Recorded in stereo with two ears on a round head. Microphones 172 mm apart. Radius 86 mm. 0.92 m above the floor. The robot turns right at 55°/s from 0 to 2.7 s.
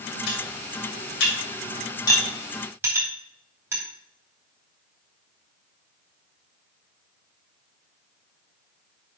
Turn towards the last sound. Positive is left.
turn(degrees=-10)  # may be behind; listen again after turning